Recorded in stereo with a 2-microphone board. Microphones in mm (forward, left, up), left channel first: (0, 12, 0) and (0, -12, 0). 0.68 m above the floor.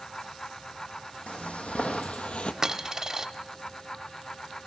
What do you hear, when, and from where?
1.3 s footsteps: 70° left (ahead or behind), 1.8 m; by 2.5 s 50° left (ahead or behind), 1.0 m
2.6 s a dropped coin: 25° right (ahead or behind), 0.6 m